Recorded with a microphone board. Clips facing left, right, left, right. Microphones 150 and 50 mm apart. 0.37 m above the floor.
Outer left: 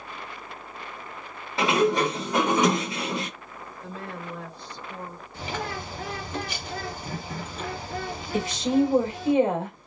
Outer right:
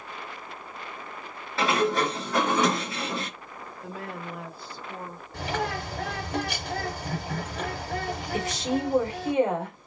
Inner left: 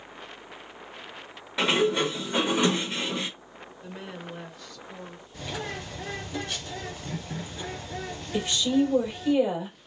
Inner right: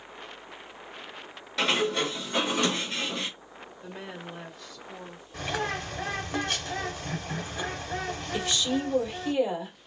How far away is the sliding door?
About 0.8 m.